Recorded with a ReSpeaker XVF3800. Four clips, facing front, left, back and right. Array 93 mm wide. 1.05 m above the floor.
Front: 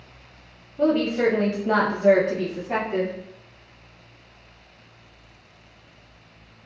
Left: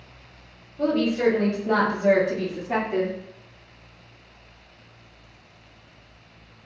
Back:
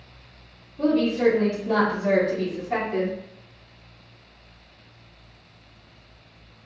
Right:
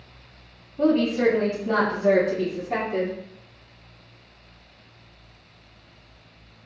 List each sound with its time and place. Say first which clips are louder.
0.8 s a woman speaking: right 2 dB, even; 40° right, 0.9 m; by 3.2 s 60° left, 1.1 m